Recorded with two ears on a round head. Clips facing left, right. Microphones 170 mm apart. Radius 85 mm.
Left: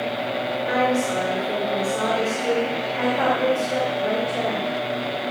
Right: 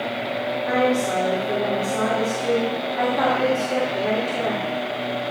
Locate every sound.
0.7 s a woman speaking: 50° right (ahead or behind), 1.7 m